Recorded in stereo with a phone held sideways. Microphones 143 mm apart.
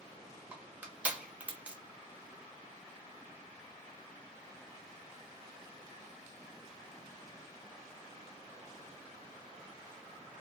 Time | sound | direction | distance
0.5 | crushing | 10° right (ahead or behind) | 1.1 m